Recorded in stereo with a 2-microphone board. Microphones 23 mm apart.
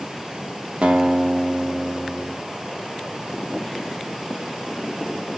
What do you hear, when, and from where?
0.8 s a guitar: 65° right (ahead or behind), 1.5 m